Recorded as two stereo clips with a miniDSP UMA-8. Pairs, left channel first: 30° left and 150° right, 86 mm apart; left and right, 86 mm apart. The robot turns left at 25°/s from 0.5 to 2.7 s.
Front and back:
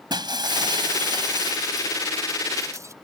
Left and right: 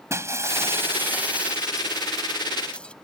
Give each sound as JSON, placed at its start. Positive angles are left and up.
{"t": 0.1, "sound": "breaking glass", "azimuth_deg": -140}